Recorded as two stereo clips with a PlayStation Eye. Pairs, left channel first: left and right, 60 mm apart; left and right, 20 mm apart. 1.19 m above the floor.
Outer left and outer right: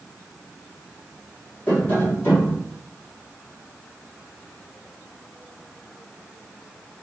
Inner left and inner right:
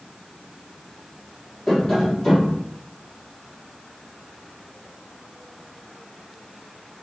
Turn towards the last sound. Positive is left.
turn(degrees=35)  # may be behind; listen again after turning